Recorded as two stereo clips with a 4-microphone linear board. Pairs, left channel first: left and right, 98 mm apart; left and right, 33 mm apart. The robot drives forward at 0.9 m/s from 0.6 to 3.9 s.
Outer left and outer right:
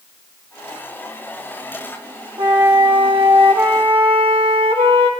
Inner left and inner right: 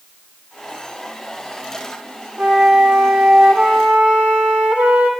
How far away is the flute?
About 1.6 m.